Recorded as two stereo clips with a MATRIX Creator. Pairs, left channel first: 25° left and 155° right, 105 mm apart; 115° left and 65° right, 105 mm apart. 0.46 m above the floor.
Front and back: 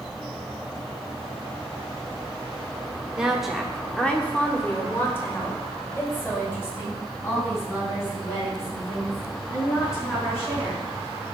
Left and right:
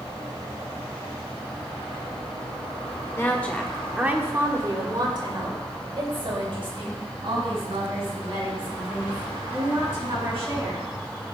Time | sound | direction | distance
3.1 | a woman speaking | 130° left | 1.3 m